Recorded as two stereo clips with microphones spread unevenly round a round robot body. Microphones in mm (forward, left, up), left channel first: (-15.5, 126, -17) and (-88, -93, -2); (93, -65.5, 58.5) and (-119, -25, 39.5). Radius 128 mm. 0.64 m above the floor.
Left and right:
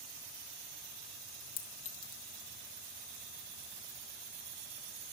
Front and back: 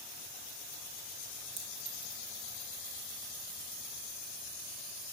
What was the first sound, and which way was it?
A clink, 100° left.